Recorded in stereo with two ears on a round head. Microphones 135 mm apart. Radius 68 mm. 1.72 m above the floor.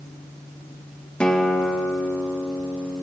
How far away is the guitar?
About 1.9 m.